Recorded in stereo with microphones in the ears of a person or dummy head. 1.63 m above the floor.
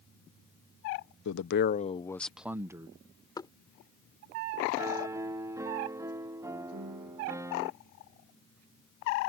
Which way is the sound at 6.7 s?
60° right (ahead or behind).